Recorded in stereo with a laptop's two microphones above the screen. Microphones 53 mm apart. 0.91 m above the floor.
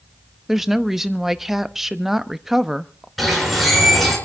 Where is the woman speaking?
5° right (ahead or behind), 1.0 m.